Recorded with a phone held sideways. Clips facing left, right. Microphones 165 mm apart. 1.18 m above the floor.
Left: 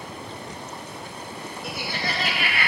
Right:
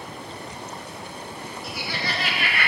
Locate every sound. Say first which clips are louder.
1.6 s laughter: left 1 dB; 55° left (ahead or behind), 1.7 m; by 2.7 s 35° left (ahead or behind), 2.0 m